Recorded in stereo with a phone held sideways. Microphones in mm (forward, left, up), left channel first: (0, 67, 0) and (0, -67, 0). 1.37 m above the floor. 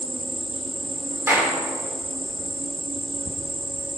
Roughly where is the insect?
Right.